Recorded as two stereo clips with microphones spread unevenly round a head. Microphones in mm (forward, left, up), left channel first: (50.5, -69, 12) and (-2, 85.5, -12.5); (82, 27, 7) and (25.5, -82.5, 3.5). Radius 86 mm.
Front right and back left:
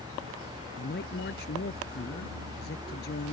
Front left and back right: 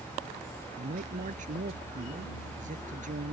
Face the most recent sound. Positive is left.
turn(degrees=-105)